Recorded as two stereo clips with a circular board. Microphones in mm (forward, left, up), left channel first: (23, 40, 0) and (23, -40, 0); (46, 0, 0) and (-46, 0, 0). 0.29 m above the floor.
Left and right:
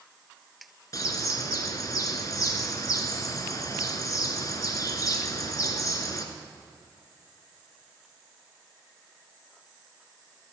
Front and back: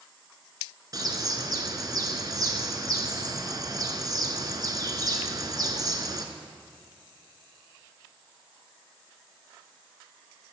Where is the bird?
135° left, 1.3 m.